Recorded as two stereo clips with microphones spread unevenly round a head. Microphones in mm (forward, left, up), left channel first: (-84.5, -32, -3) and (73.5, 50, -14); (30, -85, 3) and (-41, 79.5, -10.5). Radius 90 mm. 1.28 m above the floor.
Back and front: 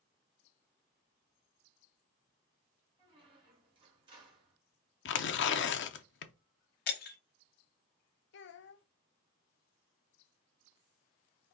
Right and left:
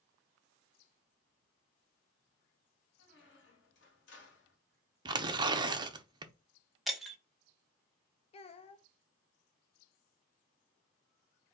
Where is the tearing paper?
Straight behind, 0.6 m.